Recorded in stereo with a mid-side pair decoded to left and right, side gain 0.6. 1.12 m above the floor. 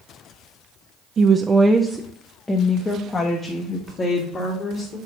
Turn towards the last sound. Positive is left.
turn(degrees=45)